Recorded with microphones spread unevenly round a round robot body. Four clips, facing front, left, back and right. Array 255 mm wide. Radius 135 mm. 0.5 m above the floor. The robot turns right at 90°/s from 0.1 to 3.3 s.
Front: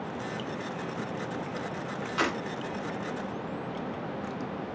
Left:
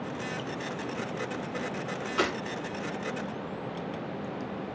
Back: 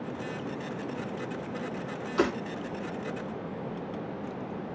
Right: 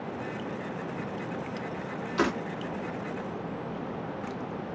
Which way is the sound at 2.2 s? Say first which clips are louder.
Right 2 dB, back 3 dB; 175° right.